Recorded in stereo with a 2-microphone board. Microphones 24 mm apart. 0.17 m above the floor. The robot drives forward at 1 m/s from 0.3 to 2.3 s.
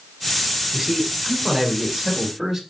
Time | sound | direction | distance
0.7 | a man speaking | 5° right (ahead or behind) | 1.6 m